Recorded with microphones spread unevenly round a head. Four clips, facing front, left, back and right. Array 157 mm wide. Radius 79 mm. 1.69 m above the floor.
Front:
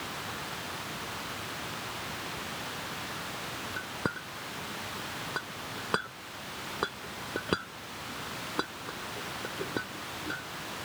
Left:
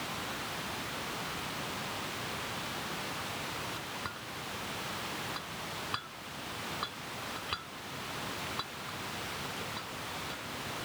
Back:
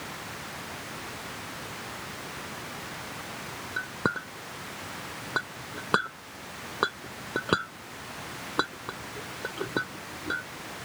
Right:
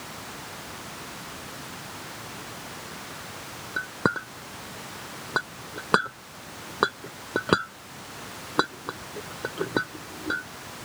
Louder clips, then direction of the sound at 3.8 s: Right 14 dB, back 6 dB; 100° right.